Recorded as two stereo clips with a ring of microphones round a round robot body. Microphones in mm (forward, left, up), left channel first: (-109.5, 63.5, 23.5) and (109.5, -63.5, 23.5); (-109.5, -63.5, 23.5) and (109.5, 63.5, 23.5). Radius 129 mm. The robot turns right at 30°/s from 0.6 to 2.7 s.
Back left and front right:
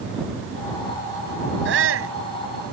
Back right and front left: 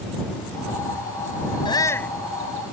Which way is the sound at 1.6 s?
75° right.